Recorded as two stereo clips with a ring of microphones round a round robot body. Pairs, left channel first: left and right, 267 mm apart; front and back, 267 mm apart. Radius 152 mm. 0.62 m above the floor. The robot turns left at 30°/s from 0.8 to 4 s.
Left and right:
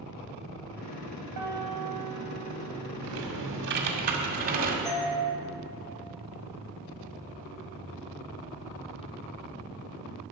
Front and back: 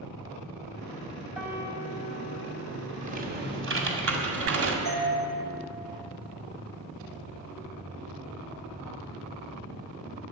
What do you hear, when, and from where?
1.4 s a piano: 95° right, 2.5 m; by 2.9 s 140° right, 2.5 m
3.0 s typing on a keyboard: 115° right, 1.9 m; by 4.8 s 145° right, 1.9 m
4.8 s a doorbell: 150° left, 4 m